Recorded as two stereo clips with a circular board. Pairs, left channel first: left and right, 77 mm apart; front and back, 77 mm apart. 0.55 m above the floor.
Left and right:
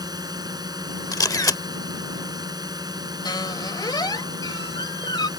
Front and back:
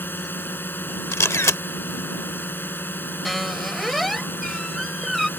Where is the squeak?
90° left.